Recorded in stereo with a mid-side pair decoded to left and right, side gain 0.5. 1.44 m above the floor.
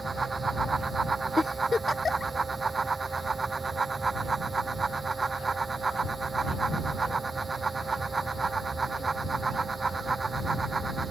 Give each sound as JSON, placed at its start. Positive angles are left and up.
{"t": 0.0, "sound": "a fan", "azimuth_deg": -25}
{"t": 1.4, "sound": "a giggle", "azimuth_deg": 25}